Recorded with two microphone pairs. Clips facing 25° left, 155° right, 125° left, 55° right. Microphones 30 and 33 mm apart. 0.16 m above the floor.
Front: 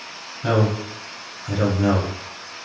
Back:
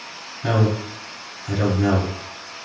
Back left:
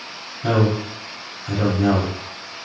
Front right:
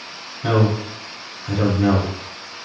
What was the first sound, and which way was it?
A man speaking, 20° right.